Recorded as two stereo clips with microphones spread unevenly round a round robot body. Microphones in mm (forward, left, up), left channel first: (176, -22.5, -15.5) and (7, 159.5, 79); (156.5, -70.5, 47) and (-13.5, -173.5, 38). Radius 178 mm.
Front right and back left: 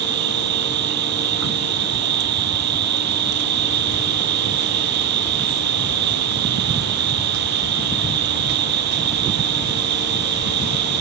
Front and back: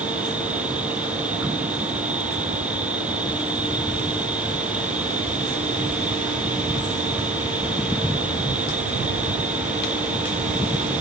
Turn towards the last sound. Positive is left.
turn(degrees=125)